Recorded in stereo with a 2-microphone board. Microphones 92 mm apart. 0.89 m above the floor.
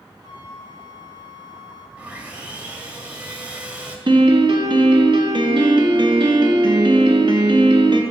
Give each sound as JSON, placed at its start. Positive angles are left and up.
{"t": 0.2, "sound": "a flute", "side_deg": -45, "distance_m": 1.3}
{"t": 2.0, "sound": "sawing", "side_deg": -15, "distance_m": 0.9}
{"t": 4.1, "sound": "a piano", "side_deg": -55, "distance_m": 0.8}